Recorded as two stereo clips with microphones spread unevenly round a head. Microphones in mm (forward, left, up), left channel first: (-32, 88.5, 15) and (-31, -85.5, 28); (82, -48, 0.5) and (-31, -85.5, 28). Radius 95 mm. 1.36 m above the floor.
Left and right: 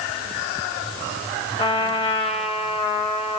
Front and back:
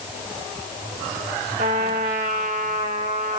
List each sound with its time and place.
1.6 s a trumpet: 150° left, 3.5 m